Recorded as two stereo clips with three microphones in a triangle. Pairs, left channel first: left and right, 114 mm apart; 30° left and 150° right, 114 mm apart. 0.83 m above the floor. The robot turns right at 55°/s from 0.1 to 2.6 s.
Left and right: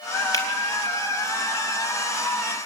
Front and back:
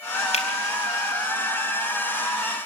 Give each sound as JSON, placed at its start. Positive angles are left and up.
{"t": 0.3, "sound": "a finger snap", "azimuth_deg": 30, "distance_m": 4.0}